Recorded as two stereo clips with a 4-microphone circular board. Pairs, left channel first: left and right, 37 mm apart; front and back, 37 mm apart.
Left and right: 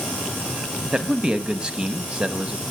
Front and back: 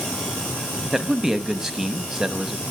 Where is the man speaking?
115° right, 1.1 m.